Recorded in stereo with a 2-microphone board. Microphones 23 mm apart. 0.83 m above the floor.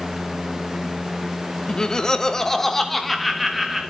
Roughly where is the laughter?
Left.